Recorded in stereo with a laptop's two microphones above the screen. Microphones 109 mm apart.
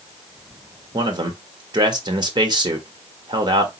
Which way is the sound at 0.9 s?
40° right (ahead or behind).